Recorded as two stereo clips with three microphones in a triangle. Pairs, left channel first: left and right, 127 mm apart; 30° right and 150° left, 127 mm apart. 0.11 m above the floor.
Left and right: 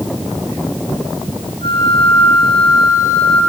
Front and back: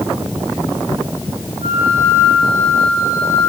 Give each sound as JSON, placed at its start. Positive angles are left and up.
{"t": 1.6, "sound": "a flute", "azimuth_deg": 130, "distance_m": 6.0}